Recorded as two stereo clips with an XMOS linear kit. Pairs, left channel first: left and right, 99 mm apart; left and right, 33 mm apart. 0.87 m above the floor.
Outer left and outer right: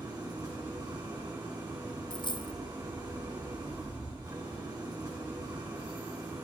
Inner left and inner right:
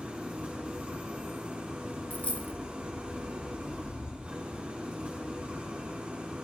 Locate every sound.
0.0 s an engine running: 45° right (ahead or behind), 3.5 m
2.1 s a dropped coin: 50° left (ahead or behind), 0.6 m